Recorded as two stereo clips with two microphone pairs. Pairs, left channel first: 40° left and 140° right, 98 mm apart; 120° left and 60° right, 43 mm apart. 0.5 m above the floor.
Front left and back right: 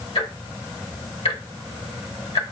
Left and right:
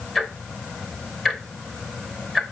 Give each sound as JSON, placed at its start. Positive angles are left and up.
{"t": 0.1, "sound": "ticking", "azimuth_deg": 30, "distance_m": 0.9}